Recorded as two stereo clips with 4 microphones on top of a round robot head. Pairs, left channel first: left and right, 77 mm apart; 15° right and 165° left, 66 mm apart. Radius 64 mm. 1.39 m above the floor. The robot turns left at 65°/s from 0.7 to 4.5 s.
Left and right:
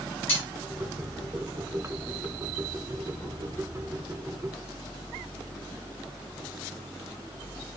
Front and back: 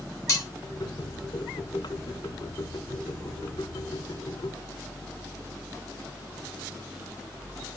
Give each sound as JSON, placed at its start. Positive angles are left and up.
{"t": 0.3, "sound": "cutlery clinking", "azimuth_deg": 25, "distance_m": 3.5}